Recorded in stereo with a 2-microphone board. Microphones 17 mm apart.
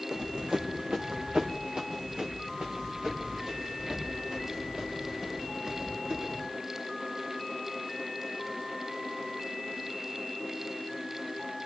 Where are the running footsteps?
50° right (ahead or behind), 1.2 m; by 6.5 s 40° right (ahead or behind), 10 m.